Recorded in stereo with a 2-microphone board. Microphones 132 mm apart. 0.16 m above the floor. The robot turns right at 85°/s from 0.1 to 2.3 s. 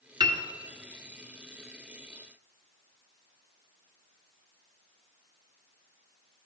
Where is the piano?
35° right (ahead or behind), 1.3 m; by 0.4 s 15° right (ahead or behind), 1.3 m.